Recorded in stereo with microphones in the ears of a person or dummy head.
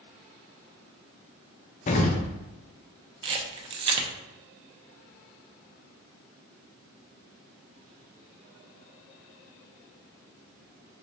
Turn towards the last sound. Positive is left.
turn(degrees=-40)  # may be behind; listen again after turning